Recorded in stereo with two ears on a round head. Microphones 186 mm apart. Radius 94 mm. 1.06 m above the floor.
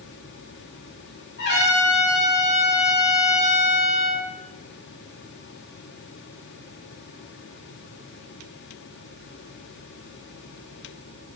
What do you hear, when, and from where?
1.4 s a trumpet: 55° left (ahead or behind), 6.5 m